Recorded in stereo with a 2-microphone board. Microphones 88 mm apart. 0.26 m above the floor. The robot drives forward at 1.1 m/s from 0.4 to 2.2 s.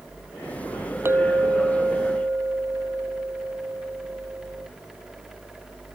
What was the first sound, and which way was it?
A clink, 25° right (ahead or behind).